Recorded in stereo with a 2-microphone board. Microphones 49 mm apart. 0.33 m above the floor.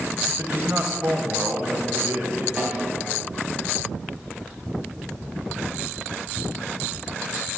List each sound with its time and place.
0.3 s a man speaking: 30° right (ahead or behind), 1.2 m; by 2.5 s 55° right (ahead or behind), 1.6 m
2.6 s a snare drum: 20° right (ahead or behind), 2.5 m